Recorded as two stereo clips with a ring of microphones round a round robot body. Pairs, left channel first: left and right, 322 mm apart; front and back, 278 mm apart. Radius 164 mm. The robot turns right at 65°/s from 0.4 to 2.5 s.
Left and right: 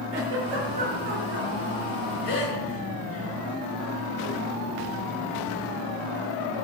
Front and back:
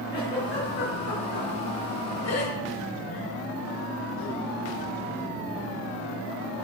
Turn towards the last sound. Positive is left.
turn(degrees=45)